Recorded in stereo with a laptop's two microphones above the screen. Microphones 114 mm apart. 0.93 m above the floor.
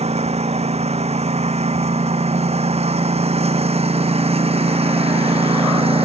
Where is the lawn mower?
85° right; by 6.0 s 65° right (ahead or behind).